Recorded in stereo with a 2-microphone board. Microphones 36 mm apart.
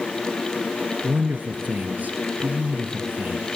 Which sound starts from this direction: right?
A man speaking, at 1.0 s.